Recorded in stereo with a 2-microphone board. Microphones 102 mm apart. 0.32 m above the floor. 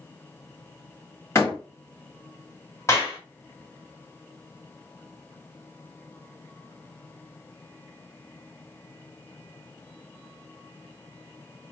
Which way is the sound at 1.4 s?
30° left (ahead or behind).